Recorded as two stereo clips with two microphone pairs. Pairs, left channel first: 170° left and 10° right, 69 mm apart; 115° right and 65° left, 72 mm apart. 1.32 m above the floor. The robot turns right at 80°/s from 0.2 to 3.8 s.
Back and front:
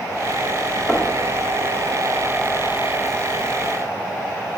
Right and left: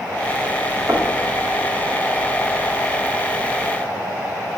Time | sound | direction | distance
0.9 | knocking | 110° left | 2 m